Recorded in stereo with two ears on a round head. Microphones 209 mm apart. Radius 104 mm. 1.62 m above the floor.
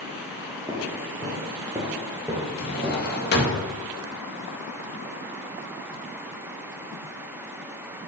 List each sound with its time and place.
0.7 s footsteps: 15° right (ahead or behind), 1.6 m; by 3.6 s 5° right (ahead or behind), 2.5 m
2.6 s a drawer: 45° left (ahead or behind), 1.5 m